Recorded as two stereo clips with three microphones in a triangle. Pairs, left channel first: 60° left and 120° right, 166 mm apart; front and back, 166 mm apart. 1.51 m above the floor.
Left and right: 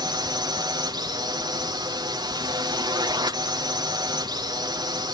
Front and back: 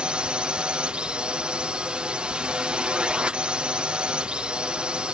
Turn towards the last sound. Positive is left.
turn(degrees=-105)